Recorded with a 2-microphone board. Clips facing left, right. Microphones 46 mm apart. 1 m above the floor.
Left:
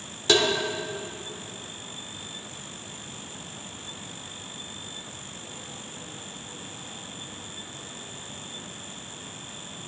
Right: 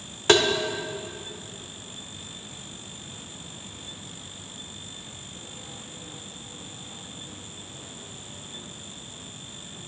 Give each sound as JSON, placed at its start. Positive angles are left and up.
{"t": 0.3, "sound": "tapping", "side_deg": -50, "distance_m": 0.8}